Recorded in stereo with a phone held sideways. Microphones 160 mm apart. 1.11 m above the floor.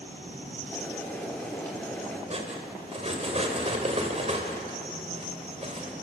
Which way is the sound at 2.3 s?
40° right (ahead or behind).